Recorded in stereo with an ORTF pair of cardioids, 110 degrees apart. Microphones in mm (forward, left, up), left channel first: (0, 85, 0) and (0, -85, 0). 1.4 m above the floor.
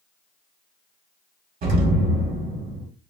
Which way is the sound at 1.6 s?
50° right.